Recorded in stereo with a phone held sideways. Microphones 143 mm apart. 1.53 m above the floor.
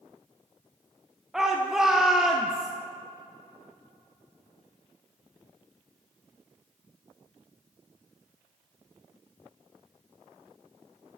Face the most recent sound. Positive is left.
turn(degrees=-5)  # may be behind; listen again after turning